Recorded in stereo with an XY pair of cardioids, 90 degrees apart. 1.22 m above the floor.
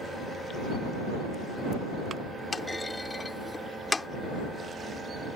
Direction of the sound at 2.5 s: 25° left.